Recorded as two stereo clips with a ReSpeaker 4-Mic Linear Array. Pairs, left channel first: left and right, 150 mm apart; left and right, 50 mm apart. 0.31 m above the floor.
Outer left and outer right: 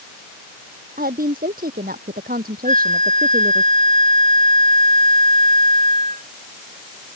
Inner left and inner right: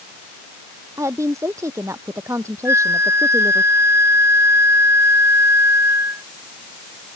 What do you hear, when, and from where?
1.0 s a woman speaking: 75° right (ahead or behind)
2.6 s a flute: 55° right (ahead or behind)